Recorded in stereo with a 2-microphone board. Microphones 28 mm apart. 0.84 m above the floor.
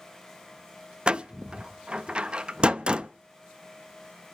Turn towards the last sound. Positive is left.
turn(degrees=-35)  # may be behind; listen again after turning